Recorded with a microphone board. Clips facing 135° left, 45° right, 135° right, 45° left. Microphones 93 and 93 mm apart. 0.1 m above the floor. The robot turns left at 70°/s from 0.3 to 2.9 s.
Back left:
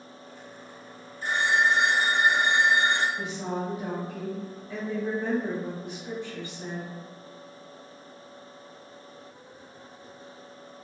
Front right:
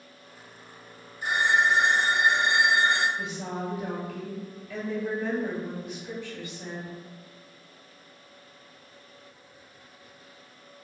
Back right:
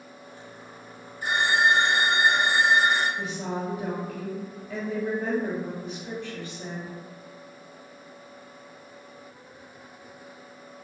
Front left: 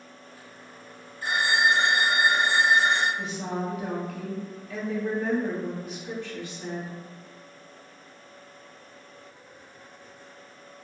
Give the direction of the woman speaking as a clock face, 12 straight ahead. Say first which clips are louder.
Back left 2 dB, even; 6 o'clock.